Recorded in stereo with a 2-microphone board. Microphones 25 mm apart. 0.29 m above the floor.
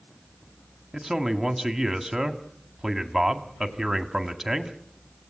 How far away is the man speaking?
About 1.8 m.